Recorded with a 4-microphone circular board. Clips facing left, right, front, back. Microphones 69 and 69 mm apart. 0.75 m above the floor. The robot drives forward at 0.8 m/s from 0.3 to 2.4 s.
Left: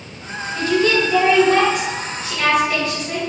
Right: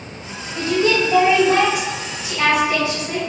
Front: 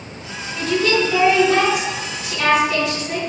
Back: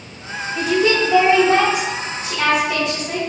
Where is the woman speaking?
105° right, 1.1 m; by 3.2 s 160° right, 2.0 m.